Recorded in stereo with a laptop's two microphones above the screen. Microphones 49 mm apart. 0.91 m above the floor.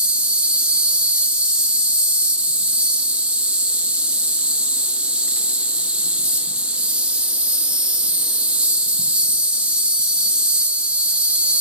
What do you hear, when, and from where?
0.0 s an insect: 25° right (ahead or behind), 1.4 m